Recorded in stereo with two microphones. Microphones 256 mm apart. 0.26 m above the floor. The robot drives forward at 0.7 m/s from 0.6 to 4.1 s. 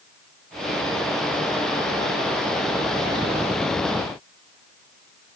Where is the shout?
I don't hear a shout.